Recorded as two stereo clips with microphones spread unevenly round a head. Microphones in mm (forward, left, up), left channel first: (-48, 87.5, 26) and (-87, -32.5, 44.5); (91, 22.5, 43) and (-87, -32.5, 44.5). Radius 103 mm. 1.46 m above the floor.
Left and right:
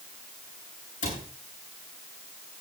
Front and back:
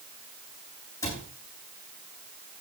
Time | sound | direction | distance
1.0 | a cupboard door | 90° left | 9 m